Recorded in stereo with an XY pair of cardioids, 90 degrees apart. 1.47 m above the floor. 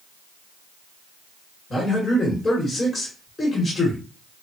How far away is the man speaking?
About 1.6 m.